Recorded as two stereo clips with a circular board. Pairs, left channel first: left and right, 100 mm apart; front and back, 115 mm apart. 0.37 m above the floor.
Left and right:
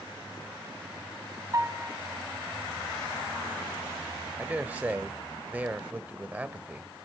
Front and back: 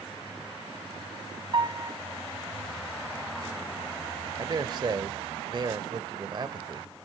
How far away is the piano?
About 1.7 m.